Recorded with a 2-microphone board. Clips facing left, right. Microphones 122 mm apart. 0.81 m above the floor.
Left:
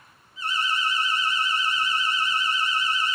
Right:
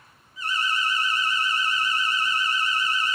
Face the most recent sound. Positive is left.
turn(degrees=30)  # may be behind; listen again after turning